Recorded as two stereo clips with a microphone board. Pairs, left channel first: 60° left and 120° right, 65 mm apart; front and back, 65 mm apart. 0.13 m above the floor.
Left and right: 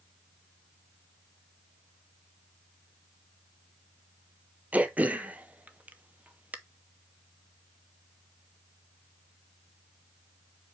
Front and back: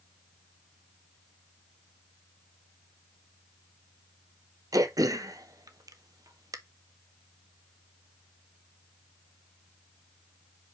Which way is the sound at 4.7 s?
175° left.